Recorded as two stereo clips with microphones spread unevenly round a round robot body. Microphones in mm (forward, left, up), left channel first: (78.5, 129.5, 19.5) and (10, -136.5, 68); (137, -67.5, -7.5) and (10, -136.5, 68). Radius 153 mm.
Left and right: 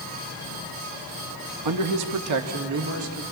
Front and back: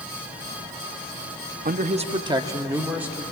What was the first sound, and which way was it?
A man speaking, 110° right.